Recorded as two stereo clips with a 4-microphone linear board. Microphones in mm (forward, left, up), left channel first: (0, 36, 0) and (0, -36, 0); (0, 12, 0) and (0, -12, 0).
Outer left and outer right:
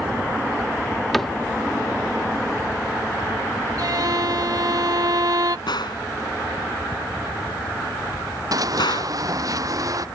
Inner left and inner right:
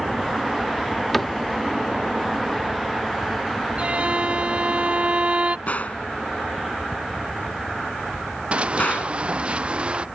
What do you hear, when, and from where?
1.1 s a cupboard door: 5° left (ahead or behind)
3.8 s a violin: 60° right (ahead or behind)
5.7 s a gunshot: 85° left
8.5 s running footsteps: 55° right (ahead or behind); by 10.1 s 50° right (ahead or behind)